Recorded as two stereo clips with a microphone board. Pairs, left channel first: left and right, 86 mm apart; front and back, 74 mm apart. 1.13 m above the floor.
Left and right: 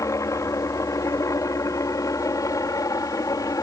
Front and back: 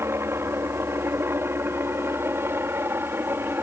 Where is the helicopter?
135° left; by 3.6 s 130° left.